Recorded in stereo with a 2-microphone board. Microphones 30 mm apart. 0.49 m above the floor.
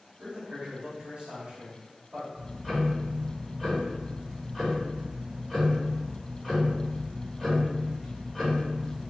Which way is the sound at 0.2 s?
40° right (ahead or behind).